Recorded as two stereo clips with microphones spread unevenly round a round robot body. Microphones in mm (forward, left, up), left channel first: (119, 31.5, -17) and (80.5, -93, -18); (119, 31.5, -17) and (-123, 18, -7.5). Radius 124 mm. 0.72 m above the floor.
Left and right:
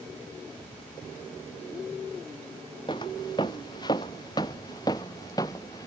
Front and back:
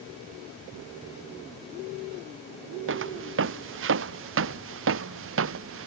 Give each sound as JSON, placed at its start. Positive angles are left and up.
{"t": 2.9, "sound": "footsteps", "azimuth_deg": 145}